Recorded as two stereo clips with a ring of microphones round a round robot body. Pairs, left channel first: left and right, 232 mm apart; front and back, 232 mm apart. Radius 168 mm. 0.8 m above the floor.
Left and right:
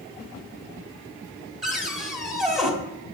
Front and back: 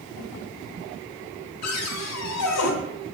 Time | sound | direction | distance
1.6 | a cupboard door | straight ahead | 1.4 m